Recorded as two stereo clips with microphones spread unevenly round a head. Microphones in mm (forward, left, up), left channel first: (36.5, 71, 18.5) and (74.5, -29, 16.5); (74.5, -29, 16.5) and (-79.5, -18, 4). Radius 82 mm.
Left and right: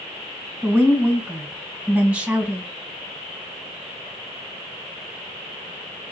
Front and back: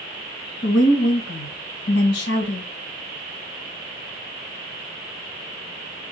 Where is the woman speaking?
Straight ahead, 1.5 m.